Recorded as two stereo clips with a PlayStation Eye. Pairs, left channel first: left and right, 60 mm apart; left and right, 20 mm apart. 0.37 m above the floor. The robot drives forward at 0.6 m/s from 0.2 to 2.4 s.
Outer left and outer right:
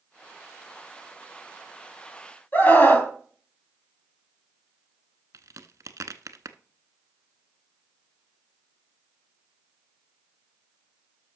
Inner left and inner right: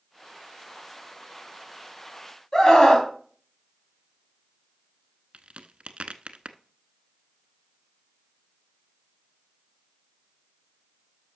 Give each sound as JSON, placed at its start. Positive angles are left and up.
{"t": 2.5, "sound": "a scream", "side_deg": 35, "distance_m": 3.0}
{"t": 5.3, "sound": "a crack", "side_deg": -70, "distance_m": 0.7}